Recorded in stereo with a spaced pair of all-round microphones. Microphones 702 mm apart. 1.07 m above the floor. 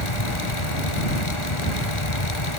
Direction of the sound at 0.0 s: 40° left (ahead or behind).